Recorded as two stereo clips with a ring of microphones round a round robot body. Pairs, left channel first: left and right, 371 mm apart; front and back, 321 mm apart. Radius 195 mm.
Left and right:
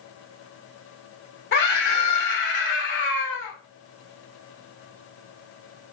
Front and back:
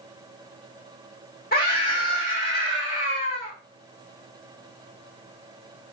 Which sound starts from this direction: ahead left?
A scream, at 1.5 s.